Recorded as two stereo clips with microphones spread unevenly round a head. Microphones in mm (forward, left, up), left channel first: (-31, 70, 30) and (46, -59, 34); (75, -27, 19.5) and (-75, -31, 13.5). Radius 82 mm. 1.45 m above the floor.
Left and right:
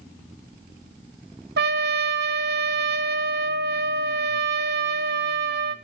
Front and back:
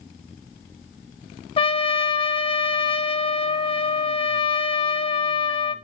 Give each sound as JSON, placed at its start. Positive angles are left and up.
{"t": 1.6, "sound": "a trumpet", "azimuth_deg": -55, "distance_m": 1.1}